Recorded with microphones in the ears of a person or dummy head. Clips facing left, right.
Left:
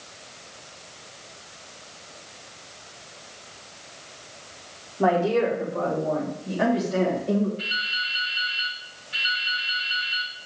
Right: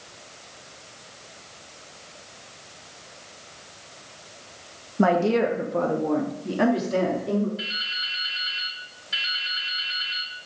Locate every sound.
5.0 s a woman speaking: 75° right (ahead or behind), 1.6 m; by 7.5 s 45° right (ahead or behind), 3 m
7.6 s dripping: 80° right, 4 m